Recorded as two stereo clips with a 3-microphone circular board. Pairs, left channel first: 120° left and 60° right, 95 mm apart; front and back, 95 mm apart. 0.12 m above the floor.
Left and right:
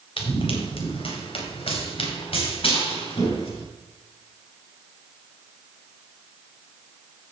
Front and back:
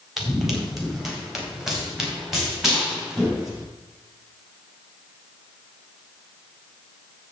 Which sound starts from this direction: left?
Running footsteps, at 0.2 s.